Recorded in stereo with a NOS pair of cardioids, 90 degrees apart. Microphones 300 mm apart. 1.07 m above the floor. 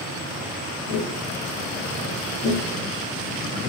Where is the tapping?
40° left, 1.7 m.